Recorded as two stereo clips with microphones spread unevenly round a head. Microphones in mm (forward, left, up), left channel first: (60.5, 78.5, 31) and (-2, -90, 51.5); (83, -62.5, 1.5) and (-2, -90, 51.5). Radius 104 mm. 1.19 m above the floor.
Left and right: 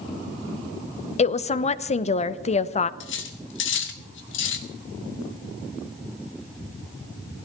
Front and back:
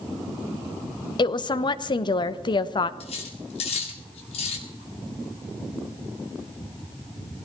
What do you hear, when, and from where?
1.2 s a woman speaking: 20° left, 0.9 m
3.0 s cutlery clinking: 55° left, 1.8 m